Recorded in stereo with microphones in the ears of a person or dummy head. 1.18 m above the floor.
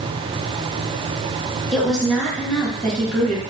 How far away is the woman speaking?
About 1.3 m.